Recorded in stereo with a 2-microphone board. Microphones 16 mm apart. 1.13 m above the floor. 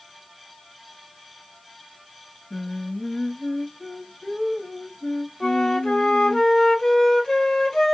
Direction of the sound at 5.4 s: 65° left (ahead or behind).